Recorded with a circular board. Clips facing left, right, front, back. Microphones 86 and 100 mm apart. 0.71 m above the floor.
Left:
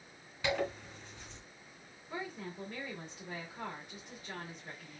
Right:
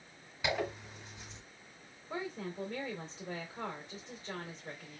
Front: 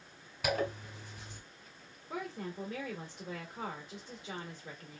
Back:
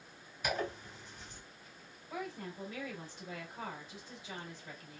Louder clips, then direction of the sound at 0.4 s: Left 1 dB, front 3 dB; 15° right.